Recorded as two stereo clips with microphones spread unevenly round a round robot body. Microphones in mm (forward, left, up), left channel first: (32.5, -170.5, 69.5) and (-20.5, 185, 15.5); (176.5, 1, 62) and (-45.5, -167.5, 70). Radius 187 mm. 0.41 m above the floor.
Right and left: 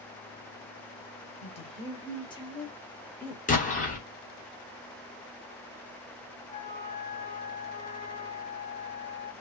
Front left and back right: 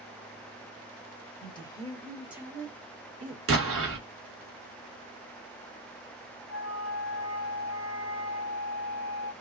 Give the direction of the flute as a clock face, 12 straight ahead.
6 o'clock.